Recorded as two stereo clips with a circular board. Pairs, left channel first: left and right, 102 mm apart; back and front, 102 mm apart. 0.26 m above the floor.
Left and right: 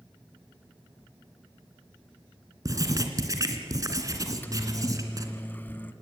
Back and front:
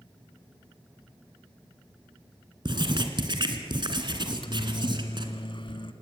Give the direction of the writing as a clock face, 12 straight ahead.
1 o'clock.